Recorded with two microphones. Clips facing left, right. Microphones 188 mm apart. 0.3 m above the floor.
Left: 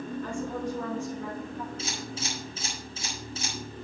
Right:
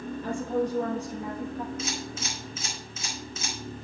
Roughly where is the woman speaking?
Centre.